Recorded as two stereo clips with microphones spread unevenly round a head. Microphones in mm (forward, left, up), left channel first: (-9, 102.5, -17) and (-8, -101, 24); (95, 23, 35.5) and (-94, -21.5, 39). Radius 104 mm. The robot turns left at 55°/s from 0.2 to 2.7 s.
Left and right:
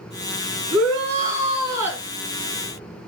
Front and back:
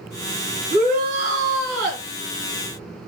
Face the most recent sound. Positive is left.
turn(degrees=145)